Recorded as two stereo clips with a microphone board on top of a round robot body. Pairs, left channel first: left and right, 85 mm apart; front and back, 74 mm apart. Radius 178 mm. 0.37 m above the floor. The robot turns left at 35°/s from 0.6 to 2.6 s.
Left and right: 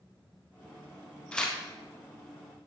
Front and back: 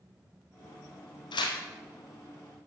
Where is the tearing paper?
10° left, 0.9 m; by 1.6 s straight ahead, 0.9 m.